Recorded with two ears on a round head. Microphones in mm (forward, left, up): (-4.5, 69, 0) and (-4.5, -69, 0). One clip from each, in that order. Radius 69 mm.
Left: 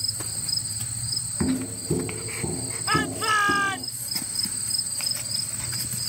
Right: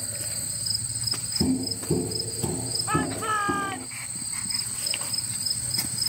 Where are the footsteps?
35° right (ahead or behind); by 3.9 s 55° right (ahead or behind).